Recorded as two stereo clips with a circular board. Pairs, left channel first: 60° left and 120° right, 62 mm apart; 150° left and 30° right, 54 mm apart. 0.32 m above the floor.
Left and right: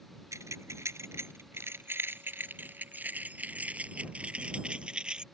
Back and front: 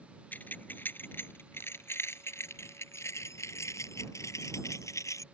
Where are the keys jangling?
155° right; by 5.2 s 165° left.